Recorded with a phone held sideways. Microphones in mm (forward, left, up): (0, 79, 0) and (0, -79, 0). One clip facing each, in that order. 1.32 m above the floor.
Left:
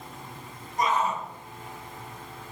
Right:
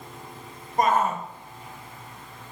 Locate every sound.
0.8 s a shout: 50° right (ahead or behind), 1.1 m